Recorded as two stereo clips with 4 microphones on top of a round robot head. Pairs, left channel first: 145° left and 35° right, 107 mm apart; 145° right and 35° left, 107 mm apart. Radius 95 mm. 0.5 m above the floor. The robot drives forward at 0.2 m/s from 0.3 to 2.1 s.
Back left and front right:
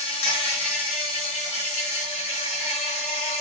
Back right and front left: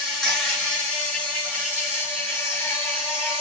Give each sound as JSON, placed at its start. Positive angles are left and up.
{"t": 0.0, "sound": "an insect", "azimuth_deg": 130, "distance_m": 1.3}